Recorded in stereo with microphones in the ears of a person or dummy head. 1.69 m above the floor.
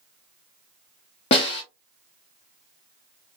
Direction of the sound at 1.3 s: 30° left (ahead or behind).